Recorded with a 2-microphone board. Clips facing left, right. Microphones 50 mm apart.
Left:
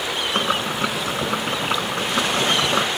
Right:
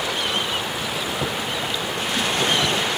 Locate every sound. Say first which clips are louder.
0.3 s boiling: left 4 dB; 70° left (ahead or behind)